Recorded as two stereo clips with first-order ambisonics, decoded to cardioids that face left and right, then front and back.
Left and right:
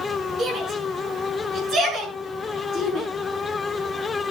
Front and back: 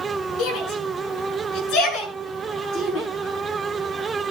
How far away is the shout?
About 6.5 m.